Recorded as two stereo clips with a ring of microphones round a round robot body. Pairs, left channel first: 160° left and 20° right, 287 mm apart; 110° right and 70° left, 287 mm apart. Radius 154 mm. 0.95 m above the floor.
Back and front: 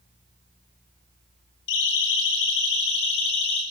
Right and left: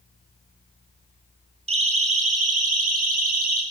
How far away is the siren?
About 8 m.